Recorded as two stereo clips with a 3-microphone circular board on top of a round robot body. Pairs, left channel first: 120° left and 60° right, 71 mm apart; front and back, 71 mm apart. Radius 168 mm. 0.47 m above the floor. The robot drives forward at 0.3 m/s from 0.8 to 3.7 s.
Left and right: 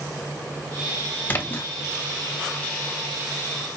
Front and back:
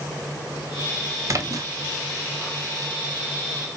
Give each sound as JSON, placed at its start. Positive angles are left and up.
{"t": 1.3, "sound": "a splash", "azimuth_deg": 170, "distance_m": 0.9}